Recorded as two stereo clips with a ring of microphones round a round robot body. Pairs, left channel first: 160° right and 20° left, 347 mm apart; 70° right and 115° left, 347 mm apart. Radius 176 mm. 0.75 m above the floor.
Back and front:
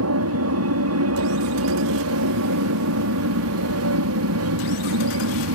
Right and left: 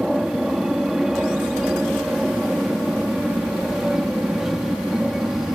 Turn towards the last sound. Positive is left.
turn(degrees=25)